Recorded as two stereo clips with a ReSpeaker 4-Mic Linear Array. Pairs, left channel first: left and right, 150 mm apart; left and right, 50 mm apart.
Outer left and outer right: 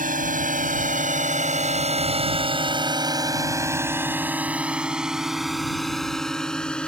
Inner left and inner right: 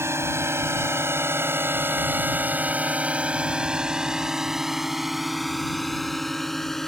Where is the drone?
65° right (ahead or behind); by 6.9 s 5° left (ahead or behind).